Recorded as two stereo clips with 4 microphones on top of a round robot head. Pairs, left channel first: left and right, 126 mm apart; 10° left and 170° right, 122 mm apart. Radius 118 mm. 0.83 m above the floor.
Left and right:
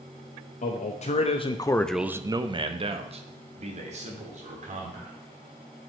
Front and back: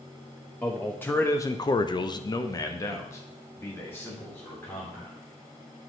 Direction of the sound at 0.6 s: 90° left.